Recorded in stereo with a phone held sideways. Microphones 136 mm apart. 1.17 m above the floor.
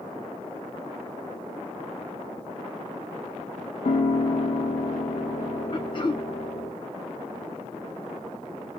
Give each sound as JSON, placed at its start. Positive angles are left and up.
{"t": 3.9, "sound": "a piano", "side_deg": 60, "distance_m": 0.9}
{"t": 5.7, "sound": "throat clearing", "side_deg": 35, "distance_m": 0.6}